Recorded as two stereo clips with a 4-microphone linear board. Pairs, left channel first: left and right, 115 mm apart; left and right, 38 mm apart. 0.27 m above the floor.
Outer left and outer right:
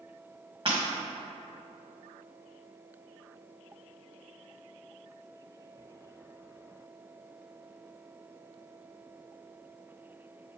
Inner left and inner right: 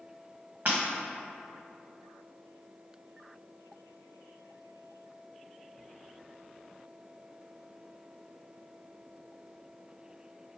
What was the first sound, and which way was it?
Breaking glass, 45° right (ahead or behind).